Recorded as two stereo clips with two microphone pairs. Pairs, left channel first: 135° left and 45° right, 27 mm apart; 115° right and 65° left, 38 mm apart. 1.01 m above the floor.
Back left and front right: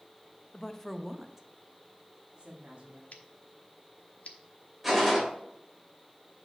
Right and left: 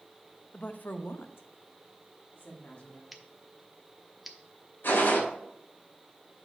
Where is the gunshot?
130° right, 2.5 m.